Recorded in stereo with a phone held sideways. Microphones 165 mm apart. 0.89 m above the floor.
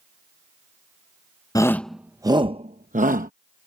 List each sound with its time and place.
1.6 s a shout: 20° left (ahead or behind); by 3.3 s 60° right (ahead or behind)